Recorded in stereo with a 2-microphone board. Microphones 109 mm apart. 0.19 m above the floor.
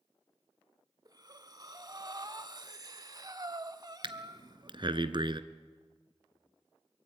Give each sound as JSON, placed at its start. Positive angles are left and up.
{"t": 1.1, "sound": "breathing", "side_deg": -35, "distance_m": 0.9}
{"t": 4.0, "sound": "breathing", "side_deg": -50, "distance_m": 0.9}